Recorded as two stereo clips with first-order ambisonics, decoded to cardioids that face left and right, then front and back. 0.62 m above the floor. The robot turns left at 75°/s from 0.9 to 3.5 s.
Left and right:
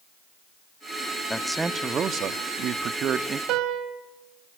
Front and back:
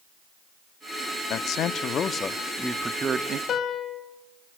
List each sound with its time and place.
1.3 s a man speaking: 10° left, 0.7 m; by 3.4 s 150° right, 0.7 m
3.5 s a piano: 55° right, 1.6 m